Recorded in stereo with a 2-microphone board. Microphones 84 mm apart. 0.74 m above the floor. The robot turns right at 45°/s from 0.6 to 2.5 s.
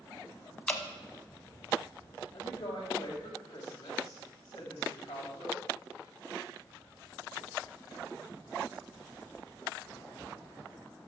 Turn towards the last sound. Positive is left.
turn(degrees=55)  # may be behind; listen again after turning